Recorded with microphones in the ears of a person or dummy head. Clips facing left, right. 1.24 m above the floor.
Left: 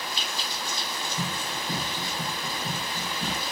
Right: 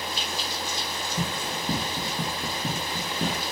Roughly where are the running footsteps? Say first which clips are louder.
Right 4 dB; right.